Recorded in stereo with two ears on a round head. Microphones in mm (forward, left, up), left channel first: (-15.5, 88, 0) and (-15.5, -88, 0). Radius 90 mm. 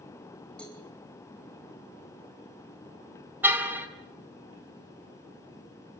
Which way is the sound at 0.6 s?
5° left (ahead or behind).